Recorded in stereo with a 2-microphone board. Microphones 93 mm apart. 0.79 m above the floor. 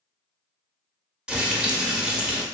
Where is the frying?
10° right (ahead or behind), 0.5 m.